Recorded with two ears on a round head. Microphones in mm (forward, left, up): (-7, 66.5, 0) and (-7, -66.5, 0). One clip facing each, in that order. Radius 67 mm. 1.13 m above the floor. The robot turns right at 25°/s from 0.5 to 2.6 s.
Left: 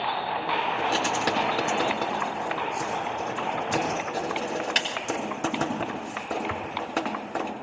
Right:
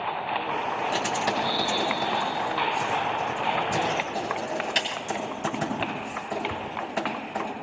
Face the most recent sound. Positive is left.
turn(degrees=80)